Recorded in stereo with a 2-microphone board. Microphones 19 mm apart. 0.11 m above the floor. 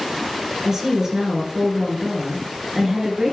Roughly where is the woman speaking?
Right.